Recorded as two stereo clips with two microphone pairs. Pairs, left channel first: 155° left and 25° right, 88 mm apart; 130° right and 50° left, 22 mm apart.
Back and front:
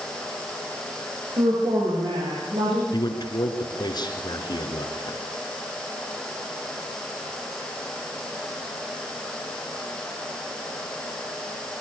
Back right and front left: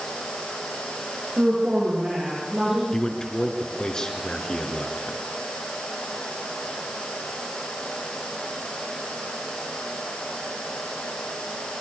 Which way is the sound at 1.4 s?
5° right.